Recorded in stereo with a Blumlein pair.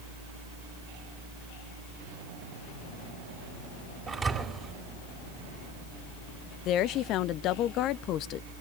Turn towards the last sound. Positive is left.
turn(degrees=35)